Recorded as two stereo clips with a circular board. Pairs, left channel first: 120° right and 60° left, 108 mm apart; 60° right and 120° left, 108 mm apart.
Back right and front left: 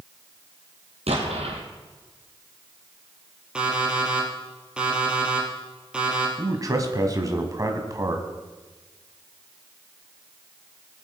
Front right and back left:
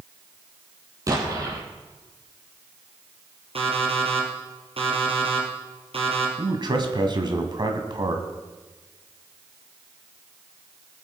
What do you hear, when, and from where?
1.1 s an explosion: 65° left, 3 m
3.5 s an alarm clock: 140° left, 3 m
6.4 s a man speaking: 105° left, 1.7 m